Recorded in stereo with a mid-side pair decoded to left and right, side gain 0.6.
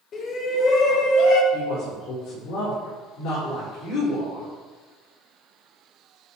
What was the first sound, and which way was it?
A shout, 45° left.